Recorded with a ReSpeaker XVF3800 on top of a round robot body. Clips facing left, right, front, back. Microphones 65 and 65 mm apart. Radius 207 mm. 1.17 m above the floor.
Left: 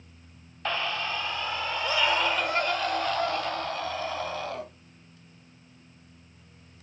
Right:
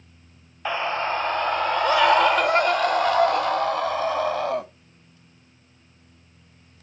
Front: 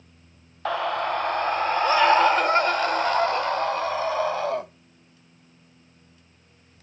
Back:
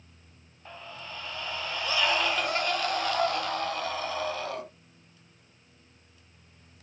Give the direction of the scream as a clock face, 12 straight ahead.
12 o'clock.